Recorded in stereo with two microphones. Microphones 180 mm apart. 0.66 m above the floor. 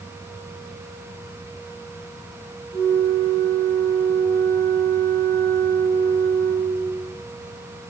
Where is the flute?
15° left (ahead or behind), 2.5 m.